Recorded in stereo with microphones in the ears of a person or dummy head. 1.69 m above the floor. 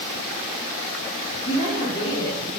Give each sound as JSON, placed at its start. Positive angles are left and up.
{"t": 1.4, "sound": "a woman speaking", "side_deg": 50, "distance_m": 2.5}